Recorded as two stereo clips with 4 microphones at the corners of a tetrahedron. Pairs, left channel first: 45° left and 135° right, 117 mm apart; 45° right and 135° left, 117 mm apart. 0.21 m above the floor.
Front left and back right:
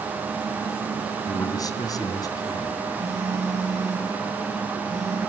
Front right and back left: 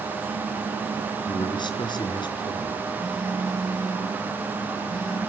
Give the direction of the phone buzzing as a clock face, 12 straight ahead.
4 o'clock.